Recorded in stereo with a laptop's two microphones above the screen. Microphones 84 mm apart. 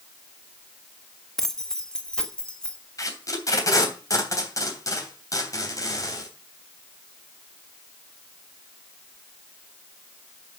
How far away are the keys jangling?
About 0.7 m.